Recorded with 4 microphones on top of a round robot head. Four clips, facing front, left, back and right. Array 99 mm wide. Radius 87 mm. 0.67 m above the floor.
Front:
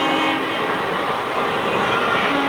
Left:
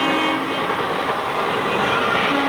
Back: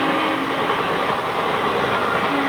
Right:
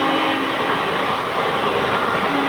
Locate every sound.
Only background noise.